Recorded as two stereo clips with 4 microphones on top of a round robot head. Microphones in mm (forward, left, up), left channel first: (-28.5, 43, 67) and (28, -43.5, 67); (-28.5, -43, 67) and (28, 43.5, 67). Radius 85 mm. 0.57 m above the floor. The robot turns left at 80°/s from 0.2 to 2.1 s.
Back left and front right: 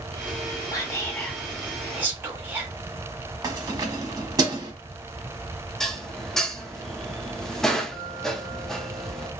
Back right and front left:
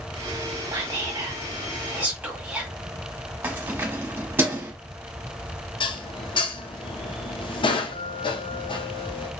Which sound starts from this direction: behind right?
Dishes clattering, at 5.8 s.